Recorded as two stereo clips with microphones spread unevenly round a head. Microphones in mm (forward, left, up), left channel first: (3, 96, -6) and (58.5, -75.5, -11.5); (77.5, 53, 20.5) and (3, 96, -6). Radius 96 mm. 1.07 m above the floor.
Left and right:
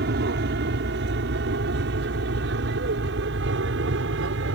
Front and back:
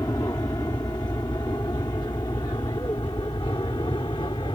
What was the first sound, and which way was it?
An aircraft, 100° right.